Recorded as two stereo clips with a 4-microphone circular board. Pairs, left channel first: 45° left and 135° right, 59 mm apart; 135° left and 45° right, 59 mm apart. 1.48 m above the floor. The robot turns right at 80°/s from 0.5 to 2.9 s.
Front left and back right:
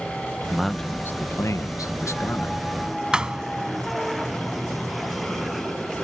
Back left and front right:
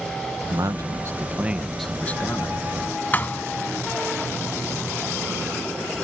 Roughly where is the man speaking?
Ahead right.